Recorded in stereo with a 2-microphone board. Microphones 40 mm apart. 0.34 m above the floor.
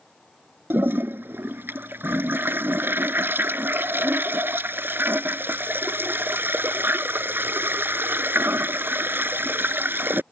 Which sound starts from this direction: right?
A toilet flushing, at 0.7 s.